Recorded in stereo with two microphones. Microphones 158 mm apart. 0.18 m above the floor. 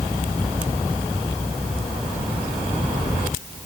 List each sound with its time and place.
Only background noise.